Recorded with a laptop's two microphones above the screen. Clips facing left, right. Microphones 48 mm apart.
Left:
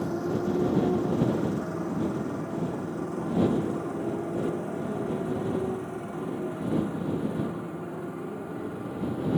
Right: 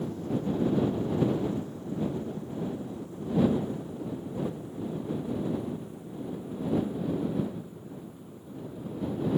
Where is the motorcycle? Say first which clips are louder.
Left 4 dB; 80° left; by 9.4 s 85° left.